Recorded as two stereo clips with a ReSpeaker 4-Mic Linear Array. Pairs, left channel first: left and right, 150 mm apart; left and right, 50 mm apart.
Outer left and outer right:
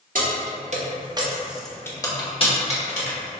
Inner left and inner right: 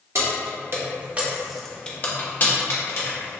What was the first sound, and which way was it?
Keys jangling, 65° right (ahead or behind).